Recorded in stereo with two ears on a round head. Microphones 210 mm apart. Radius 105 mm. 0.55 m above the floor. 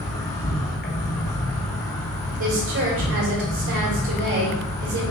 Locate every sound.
0.0 s an insect: 45° left (ahead or behind), 1.7 m
2.4 s a woman speaking: 60° right (ahead or behind), 1.8 m